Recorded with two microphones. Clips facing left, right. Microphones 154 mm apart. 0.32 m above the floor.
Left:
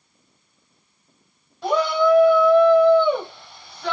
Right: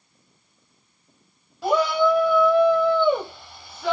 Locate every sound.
1.6 s a shout: 5° right (ahead or behind), 1.4 m